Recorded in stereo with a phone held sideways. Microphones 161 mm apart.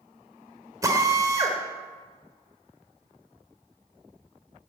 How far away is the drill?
About 2.5 m.